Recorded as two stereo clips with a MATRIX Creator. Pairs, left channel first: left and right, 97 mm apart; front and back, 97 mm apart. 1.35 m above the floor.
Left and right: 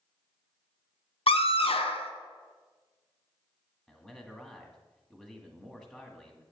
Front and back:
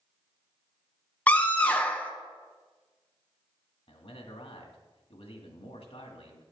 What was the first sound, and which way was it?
A scream, 75° left.